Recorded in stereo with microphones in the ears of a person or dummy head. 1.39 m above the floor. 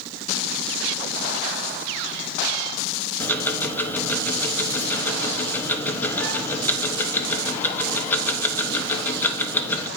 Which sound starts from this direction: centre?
Ticking, at 3.2 s.